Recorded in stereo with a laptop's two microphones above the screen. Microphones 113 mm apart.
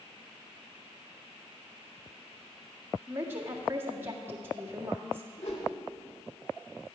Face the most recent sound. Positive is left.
turn(degrees=70)  # may be behind; listen again after turning